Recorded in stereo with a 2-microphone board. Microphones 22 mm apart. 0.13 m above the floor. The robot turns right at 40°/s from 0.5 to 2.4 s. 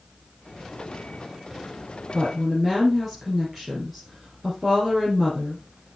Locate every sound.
2.1 s a woman speaking: 10° right (ahead or behind), 2.5 m; by 5.6 s 5° right (ahead or behind), 2.5 m